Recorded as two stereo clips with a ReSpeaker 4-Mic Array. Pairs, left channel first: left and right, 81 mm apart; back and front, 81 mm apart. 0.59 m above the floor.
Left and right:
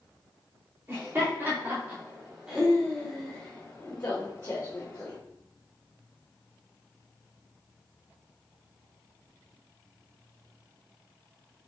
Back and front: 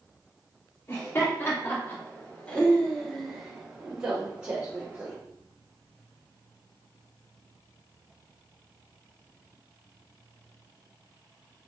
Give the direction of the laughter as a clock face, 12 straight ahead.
5 o'clock.